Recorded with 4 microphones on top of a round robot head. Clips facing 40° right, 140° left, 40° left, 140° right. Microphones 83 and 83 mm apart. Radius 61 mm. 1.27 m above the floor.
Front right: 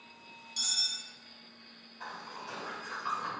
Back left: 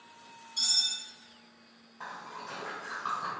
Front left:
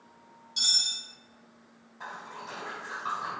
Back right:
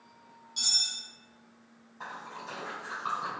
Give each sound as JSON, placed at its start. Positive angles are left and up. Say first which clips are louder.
{"t": 0.6, "sound": "cutlery clinking", "louder": "back left 2 dB, front left 3 dB", "azimuth_deg": -15, "distance_m": 0.8}
{"t": 2.0, "sound": "a splash", "louder": "back left 1 dB, even", "azimuth_deg": 170, "distance_m": 1.1}